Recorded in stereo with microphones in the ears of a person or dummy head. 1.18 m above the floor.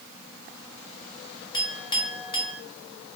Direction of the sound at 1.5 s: 25° left (ahead or behind).